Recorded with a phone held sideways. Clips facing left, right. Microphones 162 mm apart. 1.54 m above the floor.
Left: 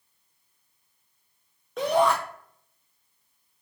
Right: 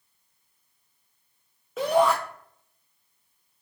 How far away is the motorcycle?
I don't hear a motorcycle.